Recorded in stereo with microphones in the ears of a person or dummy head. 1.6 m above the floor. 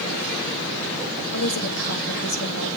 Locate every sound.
1.3 s a woman speaking: 80° left, 3.5 m